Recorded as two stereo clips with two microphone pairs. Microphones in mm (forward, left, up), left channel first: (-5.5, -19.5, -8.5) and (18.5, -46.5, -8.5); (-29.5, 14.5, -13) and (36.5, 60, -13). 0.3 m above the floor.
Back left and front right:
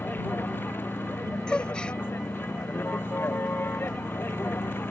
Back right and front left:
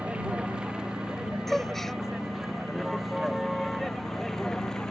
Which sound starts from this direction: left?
A vehicle, at 0.0 s.